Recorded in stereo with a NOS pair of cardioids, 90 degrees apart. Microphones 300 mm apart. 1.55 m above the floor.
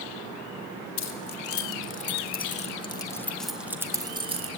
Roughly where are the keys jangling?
Ahead left.